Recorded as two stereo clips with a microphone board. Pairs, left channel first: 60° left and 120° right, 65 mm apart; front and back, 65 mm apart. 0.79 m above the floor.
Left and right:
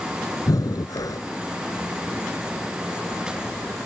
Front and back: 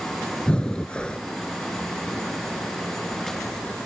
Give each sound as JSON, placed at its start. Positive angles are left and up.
{"t": 0.5, "sound": "breathing", "azimuth_deg": 75}